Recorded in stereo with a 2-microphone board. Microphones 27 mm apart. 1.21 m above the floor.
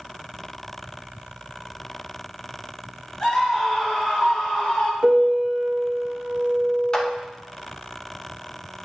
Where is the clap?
25° left (ahead or behind), 1.0 m.